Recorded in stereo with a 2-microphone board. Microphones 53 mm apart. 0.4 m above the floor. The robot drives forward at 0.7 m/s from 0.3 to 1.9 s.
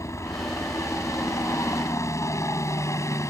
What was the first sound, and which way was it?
A helicopter, 65° left (ahead or behind).